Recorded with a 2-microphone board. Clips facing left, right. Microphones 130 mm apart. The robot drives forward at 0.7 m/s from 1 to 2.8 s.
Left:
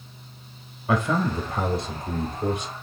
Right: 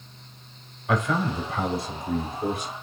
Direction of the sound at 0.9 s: 30° left (ahead or behind).